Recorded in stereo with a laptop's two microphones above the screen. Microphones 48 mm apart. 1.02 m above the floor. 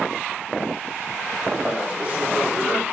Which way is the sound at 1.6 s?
30° right (ahead or behind).